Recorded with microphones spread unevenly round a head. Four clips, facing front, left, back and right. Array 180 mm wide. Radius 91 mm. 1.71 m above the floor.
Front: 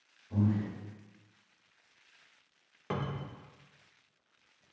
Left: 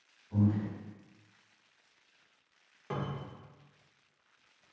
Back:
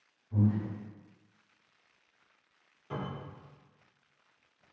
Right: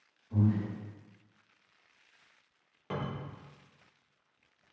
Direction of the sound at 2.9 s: Straight ahead.